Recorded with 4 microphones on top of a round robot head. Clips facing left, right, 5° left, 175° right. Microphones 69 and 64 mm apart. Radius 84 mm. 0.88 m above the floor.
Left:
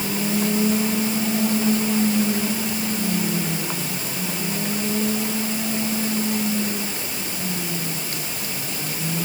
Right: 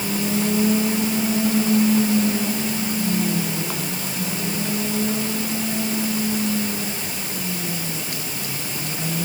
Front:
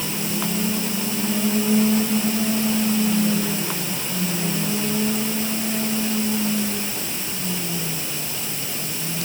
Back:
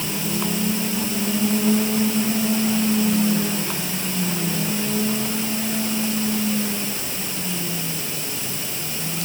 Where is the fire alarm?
I don't hear a fire alarm.